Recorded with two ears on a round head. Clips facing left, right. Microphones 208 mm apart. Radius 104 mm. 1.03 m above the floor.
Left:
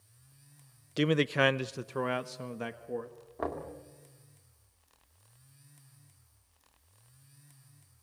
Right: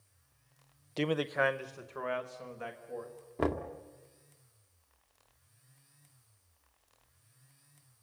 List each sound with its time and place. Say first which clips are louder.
1.0 s a man speaking: left 4 dB; 15° left (ahead or behind), 0.5 m; by 3.1 s 55° left (ahead or behind), 1.7 m
3.4 s knocking: right 4 dB; 40° right (ahead or behind), 1.9 m